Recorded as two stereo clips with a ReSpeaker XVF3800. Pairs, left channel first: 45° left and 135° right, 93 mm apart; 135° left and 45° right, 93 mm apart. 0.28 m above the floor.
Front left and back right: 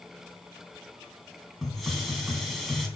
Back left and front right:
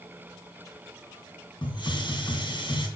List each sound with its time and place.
1.6 s a hiss: 135° left, 3 m